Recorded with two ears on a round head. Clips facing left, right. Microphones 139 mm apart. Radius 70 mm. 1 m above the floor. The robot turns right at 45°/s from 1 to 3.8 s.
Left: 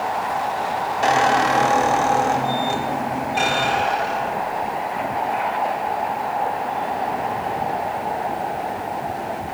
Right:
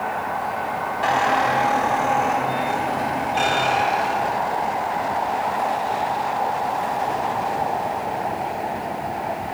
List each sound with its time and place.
1.0 s a squeak: 65° left, 0.8 m; by 4.8 s 170° right, 0.8 m